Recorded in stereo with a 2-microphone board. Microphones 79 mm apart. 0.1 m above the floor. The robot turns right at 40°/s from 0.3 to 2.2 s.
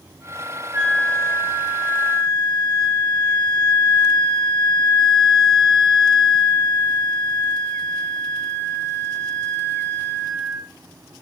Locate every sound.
0.7 s a flute: 55° right, 8.5 m; by 10.7 s 5° left, 8.5 m